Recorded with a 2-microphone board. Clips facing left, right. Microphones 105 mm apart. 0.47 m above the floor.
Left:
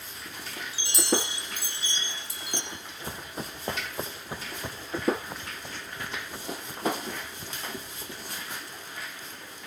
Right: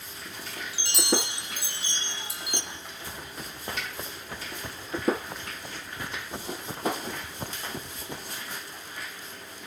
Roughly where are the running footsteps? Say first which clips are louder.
Left 1 dB; left.